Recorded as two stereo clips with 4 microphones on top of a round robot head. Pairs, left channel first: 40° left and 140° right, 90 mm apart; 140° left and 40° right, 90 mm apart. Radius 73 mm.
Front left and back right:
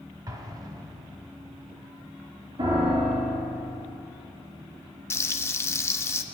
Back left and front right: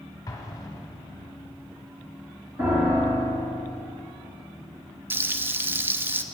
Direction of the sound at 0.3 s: 175° right.